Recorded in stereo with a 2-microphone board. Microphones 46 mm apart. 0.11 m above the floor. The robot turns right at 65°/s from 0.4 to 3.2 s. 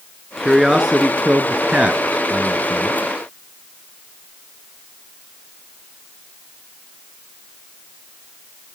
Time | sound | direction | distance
0.4 | a man speaking | centre (ahead or behind) | 1.1 m